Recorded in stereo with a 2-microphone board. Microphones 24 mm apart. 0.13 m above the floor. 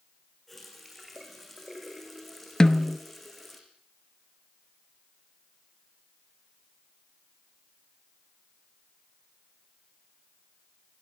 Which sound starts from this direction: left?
A snare drum, at 2.6 s.